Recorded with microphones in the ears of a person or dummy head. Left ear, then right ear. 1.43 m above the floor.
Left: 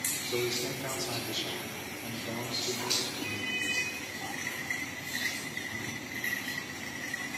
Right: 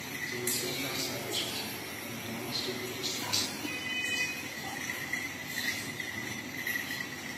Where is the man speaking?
65° left (ahead or behind), 3.5 m; by 3.6 s 40° left (ahead or behind), 4 m.